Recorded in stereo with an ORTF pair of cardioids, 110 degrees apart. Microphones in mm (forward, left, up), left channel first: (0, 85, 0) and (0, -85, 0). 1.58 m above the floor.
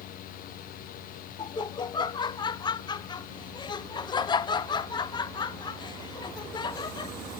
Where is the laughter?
25° left, 0.8 m.